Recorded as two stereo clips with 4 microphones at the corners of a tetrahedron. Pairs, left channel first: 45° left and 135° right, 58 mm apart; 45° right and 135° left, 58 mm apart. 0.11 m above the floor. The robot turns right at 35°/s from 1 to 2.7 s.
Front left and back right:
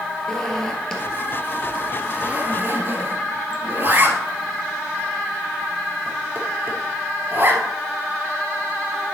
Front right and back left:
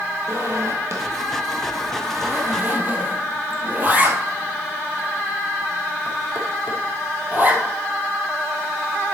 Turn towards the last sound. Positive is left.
turn(degrees=-175)